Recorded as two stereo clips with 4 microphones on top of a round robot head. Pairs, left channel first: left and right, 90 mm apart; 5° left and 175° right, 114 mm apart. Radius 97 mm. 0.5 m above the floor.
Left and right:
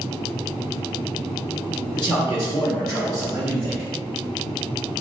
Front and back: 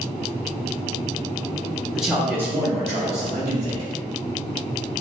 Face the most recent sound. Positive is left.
turn(degrees=130)